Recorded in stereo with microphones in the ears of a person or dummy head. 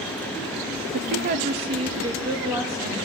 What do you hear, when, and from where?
0.9 s a woman speaking: 30° right (ahead or behind), 0.7 m; by 3.1 s 15° right (ahead or behind), 1.7 m